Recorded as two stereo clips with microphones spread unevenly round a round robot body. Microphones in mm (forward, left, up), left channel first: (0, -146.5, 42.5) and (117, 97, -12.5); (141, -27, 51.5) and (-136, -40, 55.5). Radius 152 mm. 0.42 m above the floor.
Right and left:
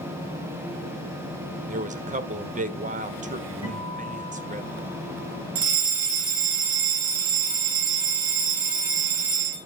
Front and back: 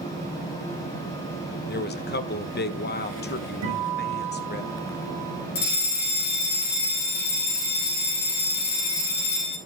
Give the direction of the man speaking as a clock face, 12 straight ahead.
11 o'clock.